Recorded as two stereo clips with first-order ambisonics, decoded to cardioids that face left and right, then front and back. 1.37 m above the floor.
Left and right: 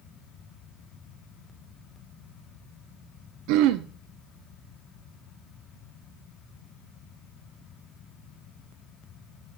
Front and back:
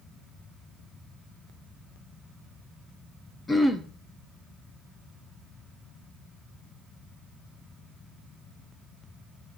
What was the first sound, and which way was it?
Throat clearing, 75° right.